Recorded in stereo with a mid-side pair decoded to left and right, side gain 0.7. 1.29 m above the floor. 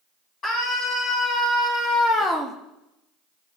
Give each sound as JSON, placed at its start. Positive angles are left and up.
{"t": 0.4, "sound": "a scream", "azimuth_deg": 45, "distance_m": 3.0}